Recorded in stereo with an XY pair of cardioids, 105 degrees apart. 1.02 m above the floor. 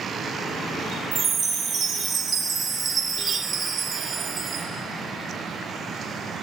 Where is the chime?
50° right, 0.9 m.